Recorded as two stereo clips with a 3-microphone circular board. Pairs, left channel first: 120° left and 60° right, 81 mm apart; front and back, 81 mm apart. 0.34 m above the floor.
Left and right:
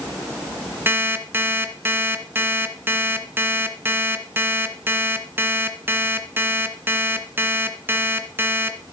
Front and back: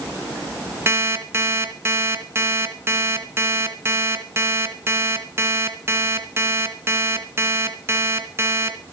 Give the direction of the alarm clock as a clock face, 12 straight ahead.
4 o'clock.